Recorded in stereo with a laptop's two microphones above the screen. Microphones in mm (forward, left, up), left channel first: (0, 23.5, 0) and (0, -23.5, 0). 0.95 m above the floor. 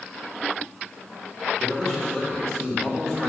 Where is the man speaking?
5° left (ahead or behind), 3 m.